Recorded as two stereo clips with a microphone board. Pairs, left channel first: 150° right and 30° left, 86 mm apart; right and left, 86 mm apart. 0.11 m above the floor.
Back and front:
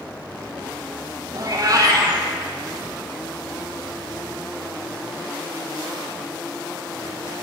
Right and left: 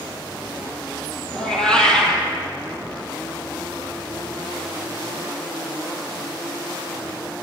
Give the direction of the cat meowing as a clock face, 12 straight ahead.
12 o'clock.